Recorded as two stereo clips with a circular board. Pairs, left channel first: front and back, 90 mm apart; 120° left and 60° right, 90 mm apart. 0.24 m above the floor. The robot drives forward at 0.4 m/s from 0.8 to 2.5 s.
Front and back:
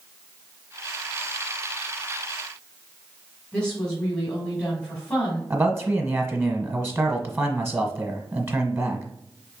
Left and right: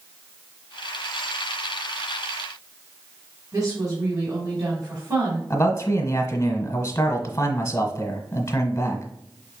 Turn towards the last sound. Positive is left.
turn(degrees=145)